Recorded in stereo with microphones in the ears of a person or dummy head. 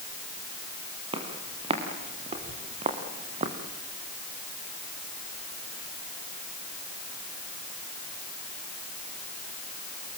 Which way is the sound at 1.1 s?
30° right (ahead or behind).